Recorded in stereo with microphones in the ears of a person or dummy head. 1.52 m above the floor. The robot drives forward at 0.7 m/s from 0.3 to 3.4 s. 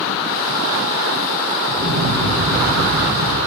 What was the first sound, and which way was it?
An explosion, 75° right (ahead or behind).